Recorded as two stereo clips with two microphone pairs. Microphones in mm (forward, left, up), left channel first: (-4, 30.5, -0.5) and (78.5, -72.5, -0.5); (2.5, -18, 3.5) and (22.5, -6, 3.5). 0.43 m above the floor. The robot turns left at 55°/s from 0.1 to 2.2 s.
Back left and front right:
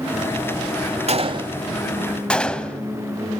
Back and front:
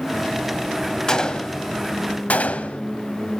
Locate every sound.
1.1 s a gunshot: 85° right, 0.7 m; by 2.8 s 145° right, 0.7 m